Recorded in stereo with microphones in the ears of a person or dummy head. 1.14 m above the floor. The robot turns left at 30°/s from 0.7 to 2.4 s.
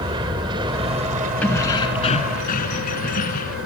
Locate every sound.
0.0 s an aircraft: 25° right; by 3.7 s 80° right
1.4 s keys jangling: 10° left (ahead or behind); by 3.6 s 40° left (ahead or behind)